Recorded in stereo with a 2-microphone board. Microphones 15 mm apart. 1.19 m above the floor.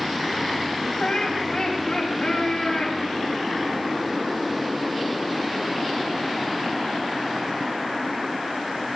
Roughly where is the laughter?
Left.